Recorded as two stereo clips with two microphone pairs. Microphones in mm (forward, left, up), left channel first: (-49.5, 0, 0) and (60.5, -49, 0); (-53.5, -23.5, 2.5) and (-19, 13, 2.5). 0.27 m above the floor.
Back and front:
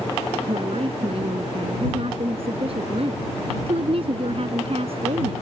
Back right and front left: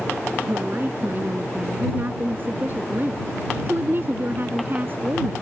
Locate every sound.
0.5 s a woman speaking: 5° left